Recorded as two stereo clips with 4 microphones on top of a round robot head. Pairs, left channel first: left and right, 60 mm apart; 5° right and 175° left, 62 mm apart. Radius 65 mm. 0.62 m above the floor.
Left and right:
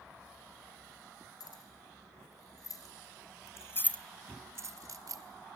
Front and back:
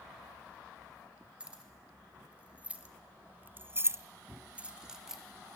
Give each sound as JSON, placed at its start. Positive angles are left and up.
{"t": 1.4, "sound": "keys jangling", "azimuth_deg": 100, "distance_m": 4.0}